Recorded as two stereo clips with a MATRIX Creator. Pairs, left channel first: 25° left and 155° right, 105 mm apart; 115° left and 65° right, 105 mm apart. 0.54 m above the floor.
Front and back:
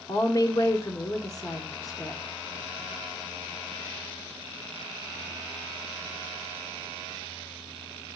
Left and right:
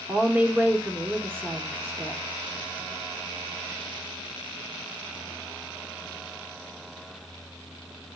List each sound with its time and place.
0.1 s a woman speaking: 5° right, 0.9 m